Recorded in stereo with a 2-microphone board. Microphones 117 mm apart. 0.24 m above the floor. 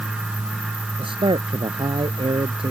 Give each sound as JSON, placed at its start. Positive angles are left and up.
{"t": 1.0, "sound": "a man speaking", "side_deg": -50}